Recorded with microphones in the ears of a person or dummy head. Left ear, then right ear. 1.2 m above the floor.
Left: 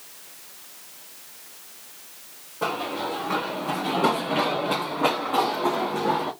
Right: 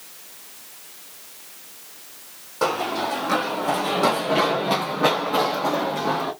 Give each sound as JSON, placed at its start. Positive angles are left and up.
{"t": 2.6, "sound": "running footsteps", "side_deg": -55, "distance_m": 2.0}